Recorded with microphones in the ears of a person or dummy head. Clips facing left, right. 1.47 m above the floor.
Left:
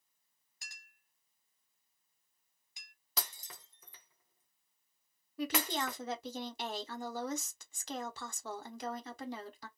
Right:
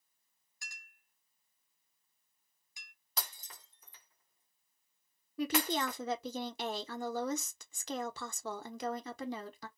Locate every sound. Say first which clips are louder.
0.6 s a clink: right 3 dB; 20° left (ahead or behind), 0.9 m
3.2 s breaking glass: left 1 dB; 55° left (ahead or behind), 0.8 m
5.4 s a woman speaking: right 3 dB; 70° right (ahead or behind), 0.8 m